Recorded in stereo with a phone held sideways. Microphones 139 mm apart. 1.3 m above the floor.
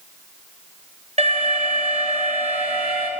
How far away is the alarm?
About 7 m.